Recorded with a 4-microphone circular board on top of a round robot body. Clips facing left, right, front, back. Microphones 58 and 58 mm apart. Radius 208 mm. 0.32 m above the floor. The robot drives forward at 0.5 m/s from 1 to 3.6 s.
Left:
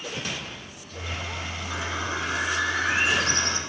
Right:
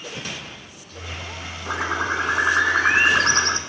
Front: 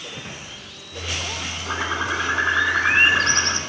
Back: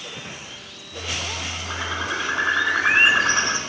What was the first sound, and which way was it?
A bird, 65° right.